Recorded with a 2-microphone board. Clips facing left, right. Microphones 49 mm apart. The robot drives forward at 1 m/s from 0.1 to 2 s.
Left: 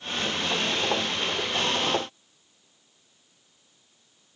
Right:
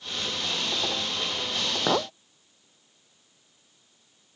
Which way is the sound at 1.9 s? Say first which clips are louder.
Right 2 dB; 70° right (ahead or behind).